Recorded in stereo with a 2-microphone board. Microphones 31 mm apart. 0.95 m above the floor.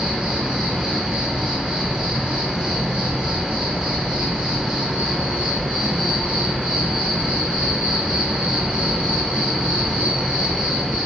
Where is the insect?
40° right (ahead or behind), 1.4 m.